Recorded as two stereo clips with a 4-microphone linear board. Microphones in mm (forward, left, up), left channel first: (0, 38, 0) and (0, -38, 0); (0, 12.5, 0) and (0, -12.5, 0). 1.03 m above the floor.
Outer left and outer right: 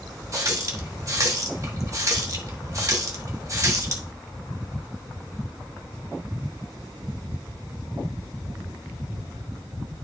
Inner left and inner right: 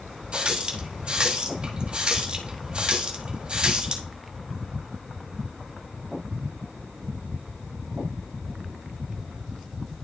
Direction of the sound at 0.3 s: 45° right (ahead or behind).